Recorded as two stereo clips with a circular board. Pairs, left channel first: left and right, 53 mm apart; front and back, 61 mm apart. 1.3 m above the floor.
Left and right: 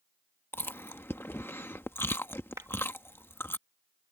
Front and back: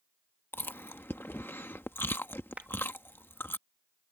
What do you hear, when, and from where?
0.5 s chewing: 50° left
2.6 s a clap: 110° right